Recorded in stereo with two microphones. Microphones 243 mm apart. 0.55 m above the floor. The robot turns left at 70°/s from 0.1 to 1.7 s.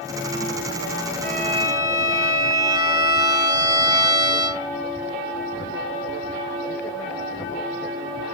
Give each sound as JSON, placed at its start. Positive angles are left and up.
{"t": 1.2, "sound": "a violin", "azimuth_deg": -130, "distance_m": 2.0}